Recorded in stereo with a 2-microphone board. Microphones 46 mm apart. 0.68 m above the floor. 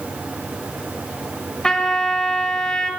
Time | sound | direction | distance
1.6 | a trumpet | 15° left (ahead or behind) | 1.6 m